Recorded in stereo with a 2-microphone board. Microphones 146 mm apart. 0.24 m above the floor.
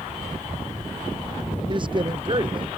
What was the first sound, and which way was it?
A man speaking, 35° right (ahead or behind).